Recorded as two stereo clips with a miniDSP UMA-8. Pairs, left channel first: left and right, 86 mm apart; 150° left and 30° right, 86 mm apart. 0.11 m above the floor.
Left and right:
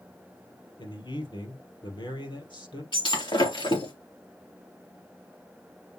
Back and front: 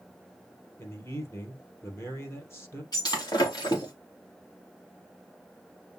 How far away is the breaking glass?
About 3.5 m.